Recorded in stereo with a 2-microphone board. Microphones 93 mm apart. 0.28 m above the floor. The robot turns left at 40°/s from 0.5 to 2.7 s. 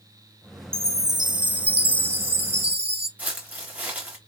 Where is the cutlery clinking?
No cutlery clinking in this recording.